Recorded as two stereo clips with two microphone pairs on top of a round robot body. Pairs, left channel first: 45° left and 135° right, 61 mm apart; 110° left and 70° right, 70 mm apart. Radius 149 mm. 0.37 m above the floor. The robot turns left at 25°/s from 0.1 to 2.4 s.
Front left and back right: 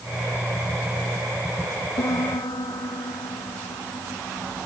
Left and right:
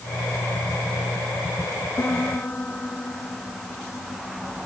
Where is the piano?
50° left; by 4.7 s 40° left.